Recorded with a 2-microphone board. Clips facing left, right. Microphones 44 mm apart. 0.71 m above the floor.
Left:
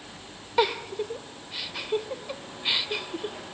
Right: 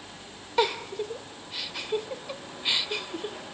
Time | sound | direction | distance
0.6 | a giggle | 5° left (ahead or behind) | 0.9 m